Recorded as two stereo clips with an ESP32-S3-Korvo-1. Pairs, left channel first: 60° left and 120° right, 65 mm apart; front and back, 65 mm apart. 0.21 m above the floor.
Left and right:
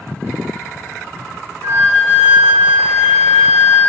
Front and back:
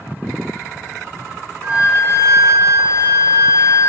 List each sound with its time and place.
1.6 s a flute: 50° right, 1.7 m